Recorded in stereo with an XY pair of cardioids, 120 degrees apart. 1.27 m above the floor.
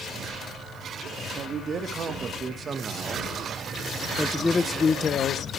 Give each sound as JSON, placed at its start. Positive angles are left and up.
{"t": 1.4, "sound": "a man speaking", "azimuth_deg": -45, "distance_m": 2.5}